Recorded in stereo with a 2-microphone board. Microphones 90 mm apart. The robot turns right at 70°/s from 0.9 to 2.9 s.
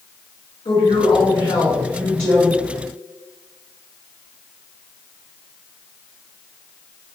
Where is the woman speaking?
80° left, 2.0 m; by 2.5 s 165° right, 2.0 m.